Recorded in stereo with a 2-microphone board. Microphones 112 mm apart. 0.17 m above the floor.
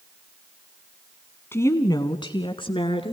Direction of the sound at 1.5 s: 20° left (ahead or behind).